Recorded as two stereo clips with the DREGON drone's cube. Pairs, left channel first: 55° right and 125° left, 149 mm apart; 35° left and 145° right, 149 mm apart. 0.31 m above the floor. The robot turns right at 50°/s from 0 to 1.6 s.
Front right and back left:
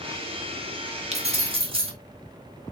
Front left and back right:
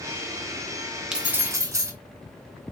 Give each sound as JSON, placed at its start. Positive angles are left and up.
{"t": 1.1, "sound": "keys jangling", "azimuth_deg": 130, "distance_m": 0.7}